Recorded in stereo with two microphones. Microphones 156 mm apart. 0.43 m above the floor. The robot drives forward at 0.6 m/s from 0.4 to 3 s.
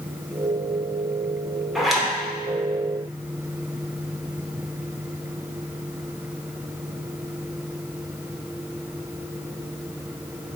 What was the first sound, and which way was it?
A zipper, centre (ahead or behind).